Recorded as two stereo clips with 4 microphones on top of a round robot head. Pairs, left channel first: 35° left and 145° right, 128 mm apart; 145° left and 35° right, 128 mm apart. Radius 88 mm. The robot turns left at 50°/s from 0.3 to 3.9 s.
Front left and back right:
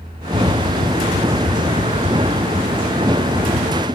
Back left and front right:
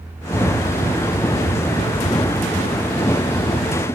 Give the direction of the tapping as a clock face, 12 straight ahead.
2 o'clock.